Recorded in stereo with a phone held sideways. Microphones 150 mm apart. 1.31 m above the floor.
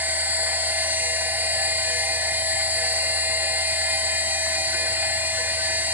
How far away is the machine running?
About 1.3 m.